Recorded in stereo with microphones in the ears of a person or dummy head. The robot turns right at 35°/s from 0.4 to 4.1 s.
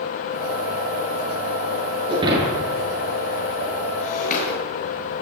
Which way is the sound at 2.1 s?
25° right (ahead or behind).